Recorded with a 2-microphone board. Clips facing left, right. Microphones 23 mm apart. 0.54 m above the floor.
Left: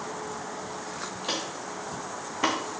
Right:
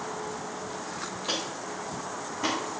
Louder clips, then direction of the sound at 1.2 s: Even; 10° left (ahead or behind).